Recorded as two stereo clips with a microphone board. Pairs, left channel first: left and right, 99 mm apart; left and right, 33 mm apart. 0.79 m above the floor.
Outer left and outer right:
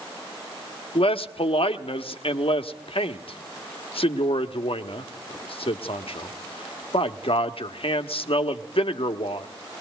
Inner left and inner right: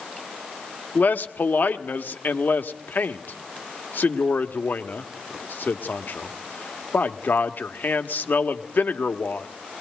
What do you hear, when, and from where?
0.9 s a man speaking: 70° left (ahead or behind), 1.3 m